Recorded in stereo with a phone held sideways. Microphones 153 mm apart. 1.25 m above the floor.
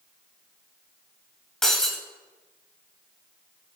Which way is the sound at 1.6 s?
5° left (ahead or behind).